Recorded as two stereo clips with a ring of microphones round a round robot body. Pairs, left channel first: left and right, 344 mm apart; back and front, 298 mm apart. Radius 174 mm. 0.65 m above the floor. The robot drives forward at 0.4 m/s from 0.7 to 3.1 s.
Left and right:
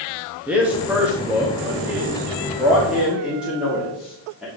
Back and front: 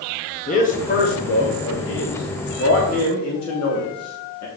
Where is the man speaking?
170° right, 1.2 m; by 4.5 s 175° right, 1.8 m.